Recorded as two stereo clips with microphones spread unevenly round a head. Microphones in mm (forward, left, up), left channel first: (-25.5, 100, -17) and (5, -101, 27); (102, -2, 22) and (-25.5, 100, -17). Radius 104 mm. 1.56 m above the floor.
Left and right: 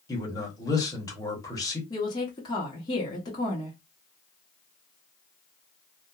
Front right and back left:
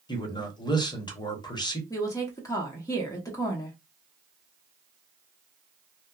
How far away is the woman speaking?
About 0.8 m.